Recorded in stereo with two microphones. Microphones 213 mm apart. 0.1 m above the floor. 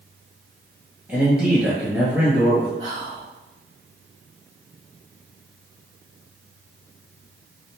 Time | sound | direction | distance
1.1 | a man speaking | 5° right (ahead or behind) | 1.6 m
2.8 | whispering | 20° right (ahead or behind) | 1.7 m